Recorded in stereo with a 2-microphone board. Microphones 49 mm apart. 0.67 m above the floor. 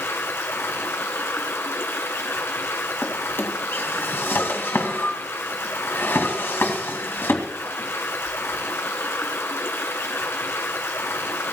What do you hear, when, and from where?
0.0 s running water: 60° left (ahead or behind), 1.8 m
3.0 s a drawer: 50° left (ahead or behind), 2 m